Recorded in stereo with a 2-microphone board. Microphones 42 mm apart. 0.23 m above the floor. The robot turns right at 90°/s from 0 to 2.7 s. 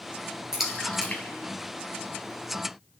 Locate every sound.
0.5 s a splash: 15° right (ahead or behind), 3.5 m; by 2.3 s 35° left (ahead or behind), 3.5 m